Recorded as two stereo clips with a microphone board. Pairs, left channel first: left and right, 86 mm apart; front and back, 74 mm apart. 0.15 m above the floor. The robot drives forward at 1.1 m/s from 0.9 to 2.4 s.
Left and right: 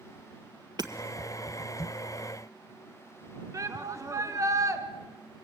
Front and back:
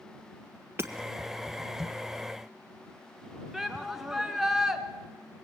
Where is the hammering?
125° right, 1.7 m.